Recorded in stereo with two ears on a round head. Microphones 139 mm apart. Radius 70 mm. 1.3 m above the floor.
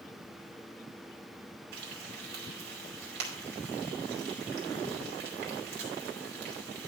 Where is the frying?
75° right (ahead or behind), 2.5 m.